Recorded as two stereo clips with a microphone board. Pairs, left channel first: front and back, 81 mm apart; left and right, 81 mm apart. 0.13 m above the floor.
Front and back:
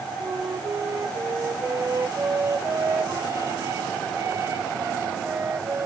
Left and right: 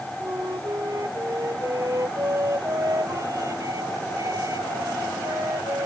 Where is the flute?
130° right.